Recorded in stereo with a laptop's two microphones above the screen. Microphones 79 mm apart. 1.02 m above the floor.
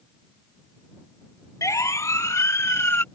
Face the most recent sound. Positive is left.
turn(degrees=30)  # may be behind; listen again after turning